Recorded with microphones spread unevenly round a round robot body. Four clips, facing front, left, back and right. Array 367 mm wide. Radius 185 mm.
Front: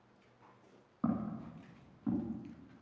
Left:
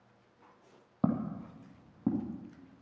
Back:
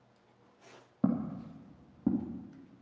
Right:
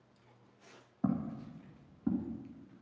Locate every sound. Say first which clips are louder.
1.0 s footsteps: left 3 dB, back 4 dB; 130° left, 2 m; by 2.3 s 140° left, 3 m